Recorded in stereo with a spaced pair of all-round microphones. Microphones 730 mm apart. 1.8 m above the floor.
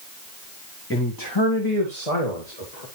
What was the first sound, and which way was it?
A man speaking, 15° left (ahead or behind).